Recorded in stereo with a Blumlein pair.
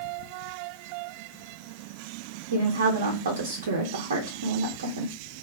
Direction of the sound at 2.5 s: 65° right.